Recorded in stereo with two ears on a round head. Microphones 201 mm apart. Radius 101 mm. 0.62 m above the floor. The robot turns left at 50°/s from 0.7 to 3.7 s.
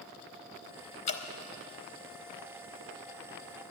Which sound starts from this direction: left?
Dripping, at 1.1 s.